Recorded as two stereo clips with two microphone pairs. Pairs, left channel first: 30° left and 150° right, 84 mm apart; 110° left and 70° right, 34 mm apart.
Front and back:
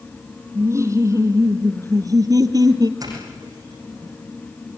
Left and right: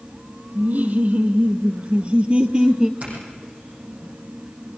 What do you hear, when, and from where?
0.6 s laughter: 100° right, 3.5 m; by 2.9 s 135° right, 1.9 m
3.0 s a doorbell: 110° right, 8 m